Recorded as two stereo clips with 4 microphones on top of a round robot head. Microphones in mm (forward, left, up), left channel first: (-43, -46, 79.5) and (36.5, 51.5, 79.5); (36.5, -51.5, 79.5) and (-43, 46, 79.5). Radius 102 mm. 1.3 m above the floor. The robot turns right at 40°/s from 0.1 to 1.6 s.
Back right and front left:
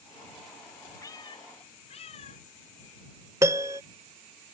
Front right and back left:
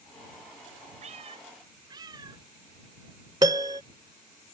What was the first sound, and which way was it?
A cat meowing, 165° left.